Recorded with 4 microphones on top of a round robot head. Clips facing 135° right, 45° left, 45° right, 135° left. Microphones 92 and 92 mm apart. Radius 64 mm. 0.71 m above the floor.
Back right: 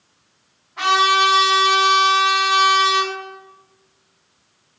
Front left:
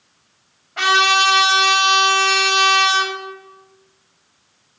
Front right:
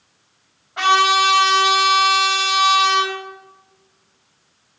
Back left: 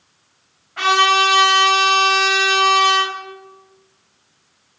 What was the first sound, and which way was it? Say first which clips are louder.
A trumpet: even, even; 25° left.